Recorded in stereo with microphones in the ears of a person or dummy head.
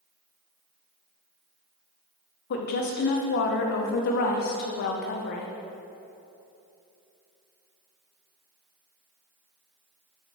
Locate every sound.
2.5 s a woman speaking: 60° left (ahead or behind), 0.8 m